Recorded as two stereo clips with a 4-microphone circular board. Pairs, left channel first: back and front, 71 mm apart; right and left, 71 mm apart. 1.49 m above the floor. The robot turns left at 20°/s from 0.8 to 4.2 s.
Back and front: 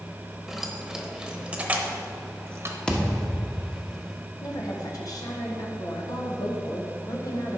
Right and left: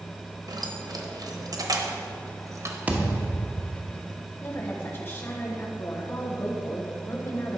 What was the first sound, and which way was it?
Keys jangling, 90° left.